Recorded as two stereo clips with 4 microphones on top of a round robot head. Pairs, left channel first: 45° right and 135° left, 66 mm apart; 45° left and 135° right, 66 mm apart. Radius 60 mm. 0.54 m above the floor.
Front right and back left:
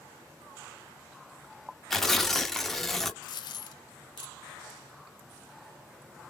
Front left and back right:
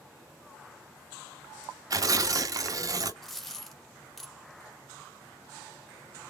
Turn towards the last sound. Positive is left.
turn(degrees=-40)